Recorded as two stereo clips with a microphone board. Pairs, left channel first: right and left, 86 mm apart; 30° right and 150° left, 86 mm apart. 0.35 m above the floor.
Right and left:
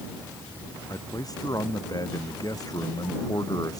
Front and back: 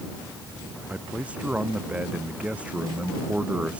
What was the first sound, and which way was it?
A man speaking, 135° right.